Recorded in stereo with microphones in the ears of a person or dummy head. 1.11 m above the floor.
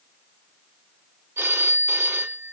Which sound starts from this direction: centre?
A phone ringing, at 1.4 s.